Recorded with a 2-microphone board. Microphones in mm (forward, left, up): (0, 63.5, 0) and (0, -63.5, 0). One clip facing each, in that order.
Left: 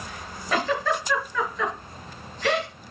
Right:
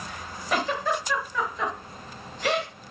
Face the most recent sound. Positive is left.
turn(degrees=-15)  # may be behind; listen again after turning